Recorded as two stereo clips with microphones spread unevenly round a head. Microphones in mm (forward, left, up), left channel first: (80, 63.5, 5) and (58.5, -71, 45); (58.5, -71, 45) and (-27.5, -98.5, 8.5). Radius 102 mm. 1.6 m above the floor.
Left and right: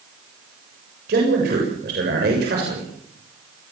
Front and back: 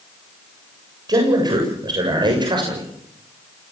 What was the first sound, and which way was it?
A man speaking, 115° right.